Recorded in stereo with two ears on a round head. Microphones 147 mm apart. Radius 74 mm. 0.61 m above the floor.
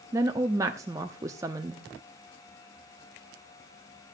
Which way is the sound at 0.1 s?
20° right (ahead or behind).